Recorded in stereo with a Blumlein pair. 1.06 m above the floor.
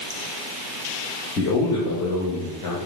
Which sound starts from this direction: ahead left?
A man speaking, at 1.4 s.